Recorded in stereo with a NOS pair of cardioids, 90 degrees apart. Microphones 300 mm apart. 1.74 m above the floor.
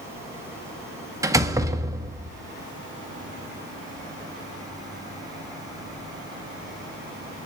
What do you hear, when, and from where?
1.2 s a door slam: 10° right, 1.6 m